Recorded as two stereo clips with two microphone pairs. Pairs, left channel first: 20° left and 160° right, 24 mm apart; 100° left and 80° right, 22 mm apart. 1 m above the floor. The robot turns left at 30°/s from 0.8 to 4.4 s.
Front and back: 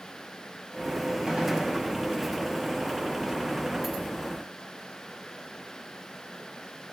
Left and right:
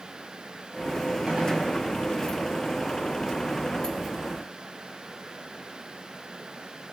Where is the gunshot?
105° right, 7 m; by 1.8 s 125° right, 7 m.